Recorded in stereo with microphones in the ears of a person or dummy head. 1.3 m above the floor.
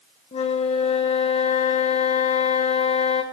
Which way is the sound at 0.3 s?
35° left (ahead or behind).